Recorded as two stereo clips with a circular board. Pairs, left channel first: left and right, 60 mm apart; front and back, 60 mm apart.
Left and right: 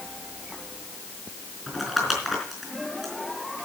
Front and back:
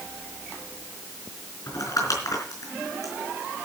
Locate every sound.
1.7 s crumpling: straight ahead, 4 m